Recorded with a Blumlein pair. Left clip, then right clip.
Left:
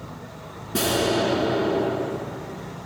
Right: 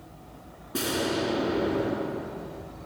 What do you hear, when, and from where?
0.7 s an explosion: 20° left, 1.8 m